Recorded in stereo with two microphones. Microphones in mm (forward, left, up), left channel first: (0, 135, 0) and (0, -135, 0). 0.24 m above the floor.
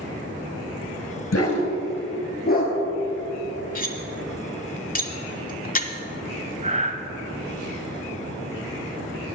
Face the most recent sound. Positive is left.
turn(degrees=-25)  # may be behind; listen again after turning